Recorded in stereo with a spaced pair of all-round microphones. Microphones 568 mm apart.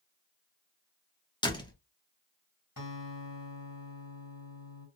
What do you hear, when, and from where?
1.4 s a door slam: 10° left (ahead or behind), 0.8 m
2.8 s a guitar: 35° left (ahead or behind), 2.5 m